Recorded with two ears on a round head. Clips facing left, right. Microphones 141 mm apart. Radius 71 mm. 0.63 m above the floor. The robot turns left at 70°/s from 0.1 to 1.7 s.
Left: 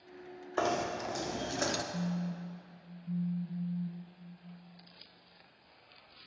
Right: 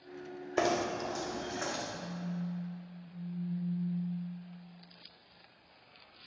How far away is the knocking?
About 0.7 m.